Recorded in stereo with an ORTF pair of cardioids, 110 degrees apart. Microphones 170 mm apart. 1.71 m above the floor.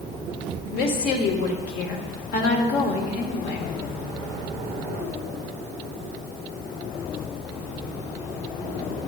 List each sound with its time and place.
0.7 s a woman speaking: 65° left, 0.9 m